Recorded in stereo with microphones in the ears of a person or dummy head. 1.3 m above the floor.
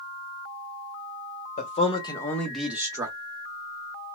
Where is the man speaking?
40° left (ahead or behind), 1.1 m; by 3.1 s 25° right (ahead or behind), 1.1 m.